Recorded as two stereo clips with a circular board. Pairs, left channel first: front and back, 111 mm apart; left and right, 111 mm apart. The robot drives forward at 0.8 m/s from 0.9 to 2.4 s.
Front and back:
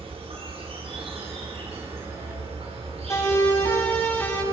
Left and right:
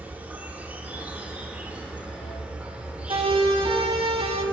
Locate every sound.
0.0 s an insect: 165° right, 5 m
3.1 s a siren: 65° right, 7 m; by 4.4 s 75° right, 8.5 m